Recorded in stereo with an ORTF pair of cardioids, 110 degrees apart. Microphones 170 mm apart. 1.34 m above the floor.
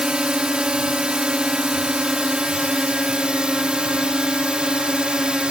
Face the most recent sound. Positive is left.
turn(degrees=-5)